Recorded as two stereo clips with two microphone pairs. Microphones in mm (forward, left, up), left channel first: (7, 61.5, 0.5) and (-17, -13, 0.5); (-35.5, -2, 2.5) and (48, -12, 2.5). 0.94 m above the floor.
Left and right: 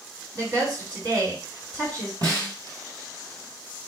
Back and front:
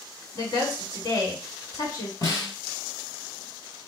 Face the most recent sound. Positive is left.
turn(degrees=-145)